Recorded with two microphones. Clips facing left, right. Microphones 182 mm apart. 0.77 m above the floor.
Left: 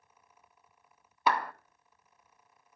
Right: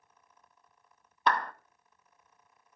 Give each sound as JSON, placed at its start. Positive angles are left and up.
{"t": 1.3, "sound": "a clap", "side_deg": 10, "distance_m": 0.5}